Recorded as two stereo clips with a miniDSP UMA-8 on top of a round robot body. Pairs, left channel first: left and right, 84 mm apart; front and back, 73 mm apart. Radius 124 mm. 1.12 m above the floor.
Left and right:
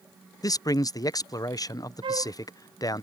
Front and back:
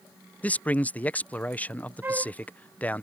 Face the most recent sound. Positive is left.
turn(degrees=-115)